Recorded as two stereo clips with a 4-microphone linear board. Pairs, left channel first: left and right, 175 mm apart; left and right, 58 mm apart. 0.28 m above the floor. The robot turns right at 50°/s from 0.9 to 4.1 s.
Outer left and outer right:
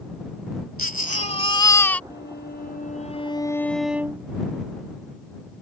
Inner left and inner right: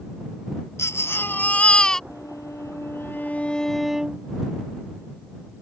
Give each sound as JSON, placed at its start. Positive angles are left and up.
{"t": 0.8, "sound": "a baby crying", "azimuth_deg": 115}
{"t": 2.1, "sound": "a violin", "azimuth_deg": 95}